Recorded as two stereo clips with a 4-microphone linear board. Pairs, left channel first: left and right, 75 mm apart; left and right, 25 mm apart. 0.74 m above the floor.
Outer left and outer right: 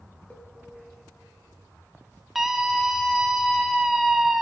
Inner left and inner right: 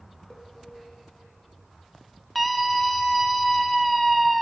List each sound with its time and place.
0.3 s a cowbell: 20° left (ahead or behind), 1.2 m
2.4 s a scream: 5° right (ahead or behind), 0.8 m